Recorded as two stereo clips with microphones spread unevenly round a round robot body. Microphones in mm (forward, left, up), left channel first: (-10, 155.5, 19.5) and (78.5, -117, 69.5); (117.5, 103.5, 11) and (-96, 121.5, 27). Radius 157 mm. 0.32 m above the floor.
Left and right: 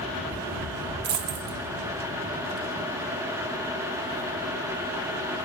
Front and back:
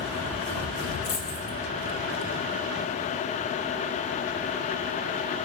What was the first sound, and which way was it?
A dropped coin, 65° right.